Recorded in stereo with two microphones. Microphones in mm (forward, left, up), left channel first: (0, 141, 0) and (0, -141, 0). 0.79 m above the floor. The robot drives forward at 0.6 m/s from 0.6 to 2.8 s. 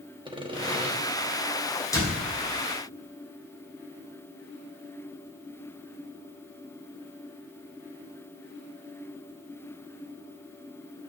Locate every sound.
0.2 s sawing: 15° right (ahead or behind), 1.0 m; by 0.9 s 20° right (ahead or behind), 0.9 m
1.9 s a door slam: 10° left (ahead or behind), 2.5 m